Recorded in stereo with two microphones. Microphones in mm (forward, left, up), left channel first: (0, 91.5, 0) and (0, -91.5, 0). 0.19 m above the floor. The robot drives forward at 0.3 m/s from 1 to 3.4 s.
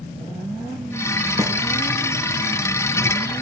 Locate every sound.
1.4 s a snare drum: 20° right (ahead or behind), 0.5 m